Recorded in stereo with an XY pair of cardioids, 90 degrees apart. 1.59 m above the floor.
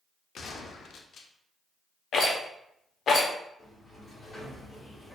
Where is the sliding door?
35° left, 1.9 m.